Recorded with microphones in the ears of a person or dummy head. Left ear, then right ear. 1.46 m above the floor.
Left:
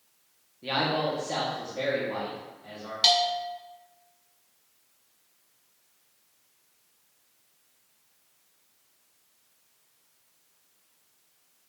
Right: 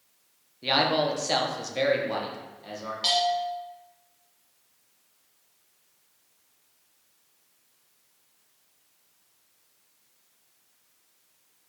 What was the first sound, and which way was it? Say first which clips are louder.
A man speaking: right 4 dB; 25° right (ahead or behind).